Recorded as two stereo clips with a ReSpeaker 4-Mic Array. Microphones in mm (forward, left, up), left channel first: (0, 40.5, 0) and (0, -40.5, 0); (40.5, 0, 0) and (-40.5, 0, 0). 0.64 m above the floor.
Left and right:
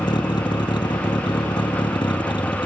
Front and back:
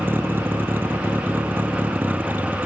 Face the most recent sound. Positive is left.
turn(degrees=110)